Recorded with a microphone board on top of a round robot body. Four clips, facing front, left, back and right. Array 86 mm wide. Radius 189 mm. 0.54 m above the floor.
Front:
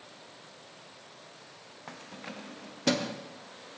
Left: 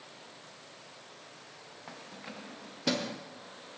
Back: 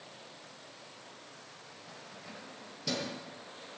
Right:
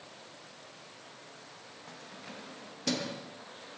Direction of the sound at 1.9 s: 15° left.